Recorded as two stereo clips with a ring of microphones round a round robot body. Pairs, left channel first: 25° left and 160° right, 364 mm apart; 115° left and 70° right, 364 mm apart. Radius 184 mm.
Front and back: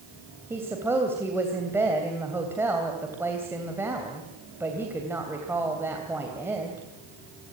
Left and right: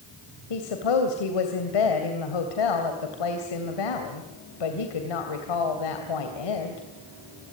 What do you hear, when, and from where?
0.5 s a woman speaking: 120° left, 3 m